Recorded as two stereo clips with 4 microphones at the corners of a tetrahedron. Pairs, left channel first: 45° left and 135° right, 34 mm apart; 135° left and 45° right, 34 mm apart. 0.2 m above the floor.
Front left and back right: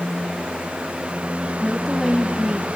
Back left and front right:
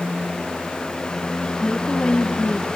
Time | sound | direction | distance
1.6 | a woman speaking | 115° left | 1.2 m